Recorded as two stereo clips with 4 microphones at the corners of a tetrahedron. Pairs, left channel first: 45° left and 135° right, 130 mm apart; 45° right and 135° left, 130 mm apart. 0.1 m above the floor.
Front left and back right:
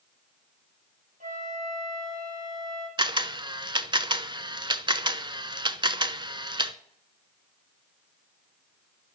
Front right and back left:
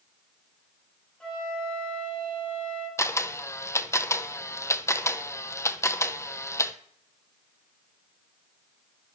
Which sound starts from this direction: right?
A camera shutter, at 3.0 s.